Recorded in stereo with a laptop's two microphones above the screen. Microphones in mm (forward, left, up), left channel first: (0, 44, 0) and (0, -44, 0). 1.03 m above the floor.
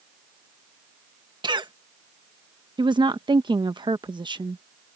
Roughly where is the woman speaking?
Right.